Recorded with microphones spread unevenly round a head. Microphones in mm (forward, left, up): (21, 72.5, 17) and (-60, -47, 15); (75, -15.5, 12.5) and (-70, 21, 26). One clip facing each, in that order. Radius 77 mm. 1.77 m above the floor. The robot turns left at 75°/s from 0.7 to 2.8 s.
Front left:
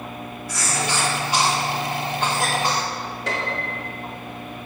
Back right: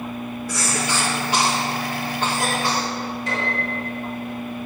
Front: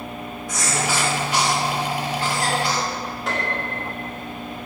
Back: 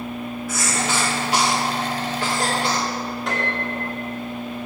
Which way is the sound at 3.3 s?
75° left.